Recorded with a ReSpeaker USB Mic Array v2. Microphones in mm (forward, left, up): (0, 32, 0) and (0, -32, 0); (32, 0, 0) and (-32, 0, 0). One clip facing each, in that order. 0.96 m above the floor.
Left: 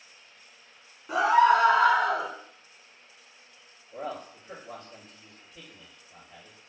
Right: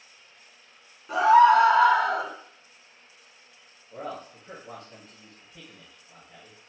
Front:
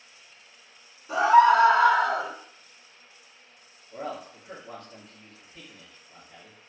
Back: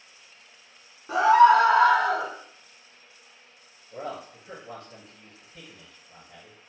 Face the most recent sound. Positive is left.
turn(degrees=-105)